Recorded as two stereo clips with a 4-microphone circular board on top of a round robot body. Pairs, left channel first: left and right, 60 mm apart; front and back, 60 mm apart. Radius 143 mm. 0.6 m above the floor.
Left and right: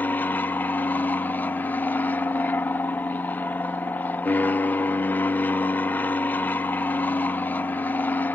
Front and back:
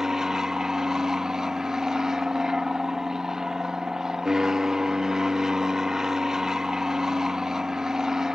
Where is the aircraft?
105° left.